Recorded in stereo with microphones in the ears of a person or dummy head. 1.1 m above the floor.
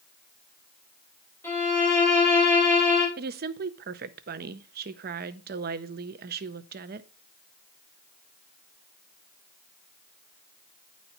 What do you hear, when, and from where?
1.4 s a violin: 15° left (ahead or behind), 5.5 m
3.2 s a woman speaking: 45° right (ahead or behind), 0.6 m